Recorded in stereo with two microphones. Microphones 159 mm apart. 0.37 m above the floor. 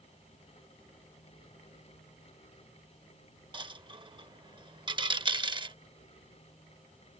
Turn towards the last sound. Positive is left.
turn(degrees=-30)  # may be behind; listen again after turning